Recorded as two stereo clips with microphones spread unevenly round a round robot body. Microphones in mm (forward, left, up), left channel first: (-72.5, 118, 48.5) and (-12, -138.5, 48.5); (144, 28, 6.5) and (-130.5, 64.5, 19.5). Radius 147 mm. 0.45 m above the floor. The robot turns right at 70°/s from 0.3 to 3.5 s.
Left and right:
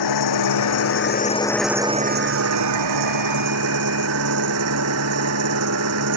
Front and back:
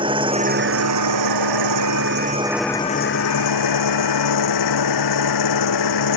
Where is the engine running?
100° left; by 6.2 s 35° right.